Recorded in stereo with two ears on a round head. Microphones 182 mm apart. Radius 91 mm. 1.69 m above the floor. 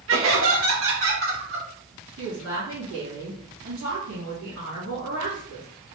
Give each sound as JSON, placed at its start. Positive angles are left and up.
{"t": 0.1, "sound": "laughter", "side_deg": -65, "distance_m": 1.8}
{"t": 2.2, "sound": "a woman speaking", "side_deg": -70, "distance_m": 2.5}